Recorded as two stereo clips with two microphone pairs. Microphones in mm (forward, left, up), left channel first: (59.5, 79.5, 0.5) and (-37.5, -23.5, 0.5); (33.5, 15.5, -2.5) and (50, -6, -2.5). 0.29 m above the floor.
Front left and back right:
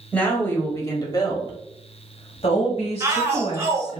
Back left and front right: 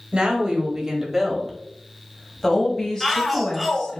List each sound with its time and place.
0.1 s a woman speaking: 25° right, 1.2 m; by 4.0 s 75° left, 1.9 m
3.0 s a shout: 135° right, 1.0 m